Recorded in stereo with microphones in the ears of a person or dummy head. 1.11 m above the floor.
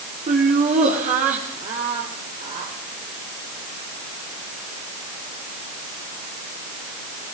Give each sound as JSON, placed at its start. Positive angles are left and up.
{"t": 0.3, "sound": "laughter", "side_deg": -40, "distance_m": 3.5}